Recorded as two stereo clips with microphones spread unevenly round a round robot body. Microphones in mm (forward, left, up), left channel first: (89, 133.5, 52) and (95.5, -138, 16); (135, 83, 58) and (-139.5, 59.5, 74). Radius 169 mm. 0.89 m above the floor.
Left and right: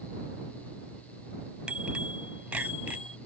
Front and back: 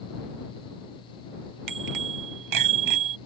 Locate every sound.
1.7 s a bicycle bell: 175° right